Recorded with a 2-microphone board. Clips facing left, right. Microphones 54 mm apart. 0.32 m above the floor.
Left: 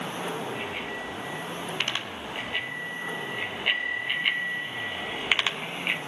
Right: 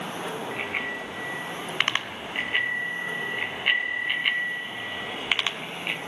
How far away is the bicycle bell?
About 2.5 m.